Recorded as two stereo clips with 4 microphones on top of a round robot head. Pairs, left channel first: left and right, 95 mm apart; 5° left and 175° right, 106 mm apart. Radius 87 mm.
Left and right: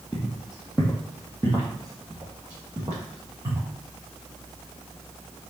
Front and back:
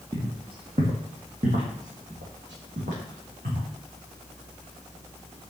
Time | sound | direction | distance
0.1 | footsteps | 175° left | 1.1 m